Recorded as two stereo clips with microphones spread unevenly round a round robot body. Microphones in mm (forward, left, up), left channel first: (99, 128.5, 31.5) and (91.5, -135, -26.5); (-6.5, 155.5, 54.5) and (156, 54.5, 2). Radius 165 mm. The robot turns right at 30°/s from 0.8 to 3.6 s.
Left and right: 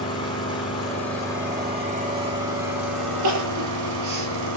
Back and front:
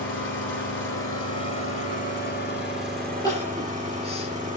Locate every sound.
0.0 s an engine running: 165° left, 7 m; by 4.6 s 110° right, 7 m
3.2 s crying: 135° right, 4.5 m; by 4.6 s 120° right, 4.5 m